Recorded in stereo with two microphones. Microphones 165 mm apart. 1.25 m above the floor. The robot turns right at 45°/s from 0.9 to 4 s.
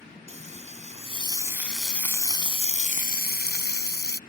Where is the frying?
40° right; by 4.2 s 100° left.